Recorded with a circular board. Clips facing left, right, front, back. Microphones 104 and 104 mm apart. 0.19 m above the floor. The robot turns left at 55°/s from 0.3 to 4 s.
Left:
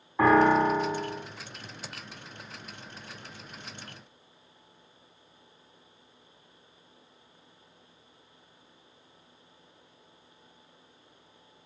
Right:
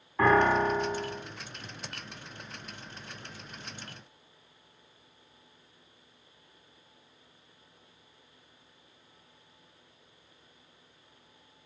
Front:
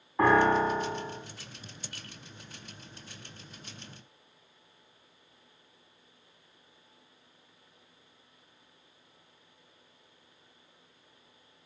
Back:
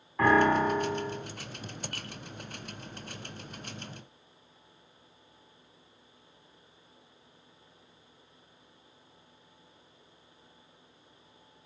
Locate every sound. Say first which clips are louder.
0.2 s a piano: left 3 dB, even; 35° left, 1.2 m; by 1.2 s 15° right, 1.2 m